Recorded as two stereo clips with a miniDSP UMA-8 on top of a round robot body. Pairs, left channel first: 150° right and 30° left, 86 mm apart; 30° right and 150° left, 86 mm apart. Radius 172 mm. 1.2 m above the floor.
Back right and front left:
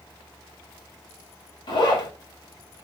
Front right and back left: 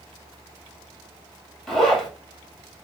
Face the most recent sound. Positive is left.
turn(degrees=-115)